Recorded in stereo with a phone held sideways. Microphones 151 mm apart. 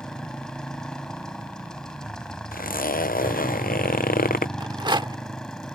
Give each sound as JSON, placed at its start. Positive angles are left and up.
{"t": 0.0, "sound": "a motorcycle", "side_deg": 5}
{"t": 2.5, "sound": "a zipper", "side_deg": 65}
{"t": 4.6, "sound": "a rattle", "side_deg": -30}